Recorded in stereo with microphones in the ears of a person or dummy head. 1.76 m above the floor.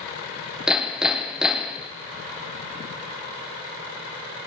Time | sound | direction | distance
0.7 | hammering | centre (ahead or behind) | 0.7 m